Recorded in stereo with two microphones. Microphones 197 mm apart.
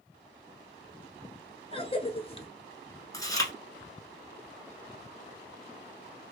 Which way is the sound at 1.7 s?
30° left (ahead or behind).